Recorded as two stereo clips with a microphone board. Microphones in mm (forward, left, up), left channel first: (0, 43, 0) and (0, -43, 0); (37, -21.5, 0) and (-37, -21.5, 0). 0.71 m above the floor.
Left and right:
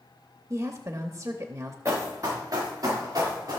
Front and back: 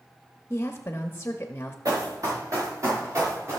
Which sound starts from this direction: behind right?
Running footsteps, at 1.9 s.